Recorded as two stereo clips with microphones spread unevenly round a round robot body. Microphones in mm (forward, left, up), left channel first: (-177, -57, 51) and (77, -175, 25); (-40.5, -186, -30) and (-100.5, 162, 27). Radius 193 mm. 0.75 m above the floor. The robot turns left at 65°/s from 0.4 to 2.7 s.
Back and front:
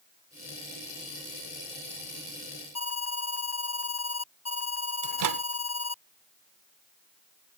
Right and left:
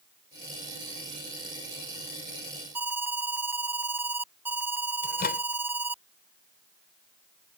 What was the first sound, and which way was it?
An alarm, 175° right.